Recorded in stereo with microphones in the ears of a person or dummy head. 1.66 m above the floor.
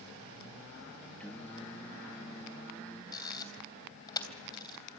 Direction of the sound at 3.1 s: 20° left (ahead or behind).